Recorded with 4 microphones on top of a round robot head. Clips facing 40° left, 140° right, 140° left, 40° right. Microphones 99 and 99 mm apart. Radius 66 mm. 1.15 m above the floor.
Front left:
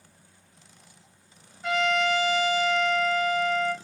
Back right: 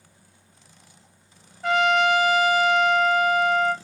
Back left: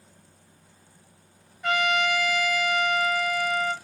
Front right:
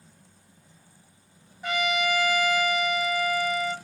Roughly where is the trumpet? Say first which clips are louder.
Back right 5 dB, back left 2 dB; right.